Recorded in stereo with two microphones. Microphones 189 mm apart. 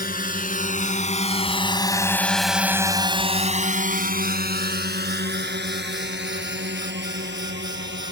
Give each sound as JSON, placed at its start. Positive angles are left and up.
{"t": 0.0, "sound": "a drone", "side_deg": 50}